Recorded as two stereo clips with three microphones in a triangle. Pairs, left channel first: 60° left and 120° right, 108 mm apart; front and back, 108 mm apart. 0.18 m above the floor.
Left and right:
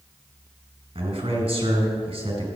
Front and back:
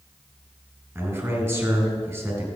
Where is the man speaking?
110° right, 4 m.